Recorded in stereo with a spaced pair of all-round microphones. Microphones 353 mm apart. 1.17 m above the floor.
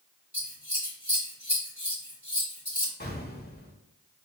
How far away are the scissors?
About 2 m.